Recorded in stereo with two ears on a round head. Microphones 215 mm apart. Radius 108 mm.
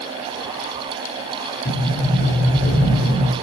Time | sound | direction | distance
1.6 | a sliding door | 30° left (ahead or behind) | 1.8 m